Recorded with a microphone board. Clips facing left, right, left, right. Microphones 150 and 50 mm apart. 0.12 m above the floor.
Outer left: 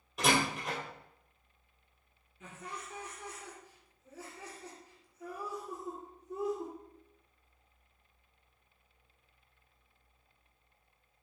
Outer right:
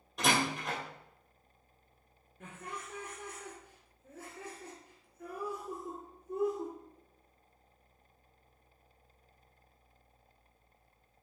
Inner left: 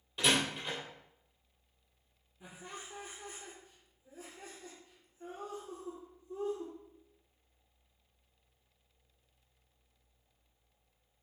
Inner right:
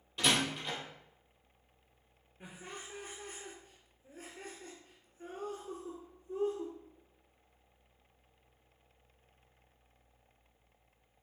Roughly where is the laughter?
Right.